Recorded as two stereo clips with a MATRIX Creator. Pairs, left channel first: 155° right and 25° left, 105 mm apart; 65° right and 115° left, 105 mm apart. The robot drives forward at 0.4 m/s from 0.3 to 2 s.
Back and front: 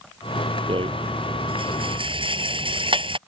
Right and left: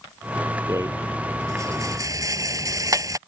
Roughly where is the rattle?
Ahead left.